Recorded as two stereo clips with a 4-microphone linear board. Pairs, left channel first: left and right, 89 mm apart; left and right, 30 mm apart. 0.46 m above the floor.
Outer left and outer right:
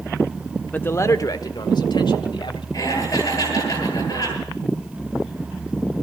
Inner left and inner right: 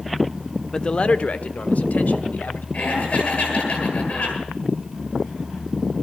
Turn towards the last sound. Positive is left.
turn(degrees=35)  # may be behind; listen again after turning